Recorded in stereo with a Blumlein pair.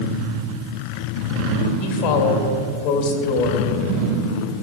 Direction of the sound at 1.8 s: 45° left.